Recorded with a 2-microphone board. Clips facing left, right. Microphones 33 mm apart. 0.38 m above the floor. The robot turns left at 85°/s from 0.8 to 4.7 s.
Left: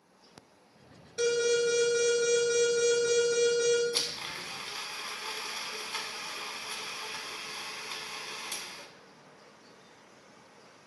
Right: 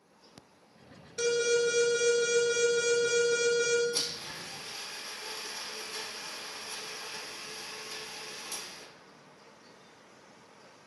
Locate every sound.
1.2 s an alarm: 20° left (ahead or behind), 1.7 m; by 3.8 s 10° right (ahead or behind), 1.7 m
3.9 s a blender: 140° left, 0.5 m; by 8.9 s 75° left, 0.5 m